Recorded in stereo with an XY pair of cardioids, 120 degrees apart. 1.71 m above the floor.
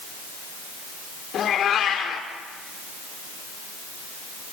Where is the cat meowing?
55° left, 3 m.